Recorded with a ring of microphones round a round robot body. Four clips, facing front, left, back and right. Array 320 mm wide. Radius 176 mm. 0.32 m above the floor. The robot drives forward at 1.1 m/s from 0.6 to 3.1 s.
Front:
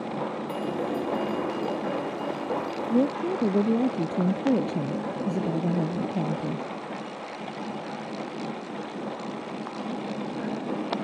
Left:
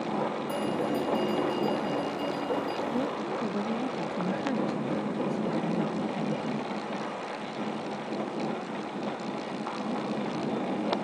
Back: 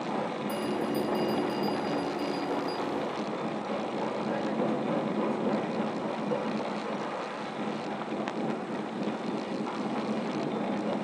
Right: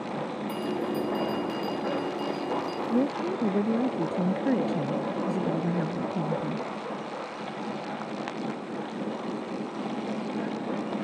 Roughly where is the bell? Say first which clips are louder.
Right 2 dB, front 1 dB; behind.